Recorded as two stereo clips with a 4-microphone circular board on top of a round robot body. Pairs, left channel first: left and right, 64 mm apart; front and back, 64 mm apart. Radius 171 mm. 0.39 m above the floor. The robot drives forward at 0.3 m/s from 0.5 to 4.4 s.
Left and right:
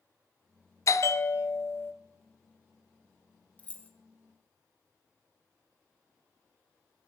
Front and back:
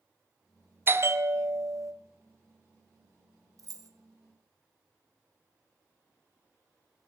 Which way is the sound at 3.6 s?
155° left.